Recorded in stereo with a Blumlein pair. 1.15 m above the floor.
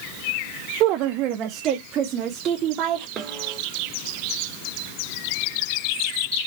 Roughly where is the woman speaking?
Ahead right.